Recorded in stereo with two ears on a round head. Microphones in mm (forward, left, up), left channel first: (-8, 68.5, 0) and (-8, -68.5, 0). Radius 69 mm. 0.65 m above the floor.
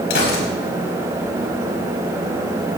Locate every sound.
0.1 s a gunshot: 80° left, 4 m